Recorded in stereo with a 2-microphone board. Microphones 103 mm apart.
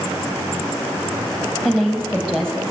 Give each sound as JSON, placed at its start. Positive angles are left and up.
{"t": 1.6, "sound": "a woman speaking", "side_deg": 5, "distance_m": 4.0}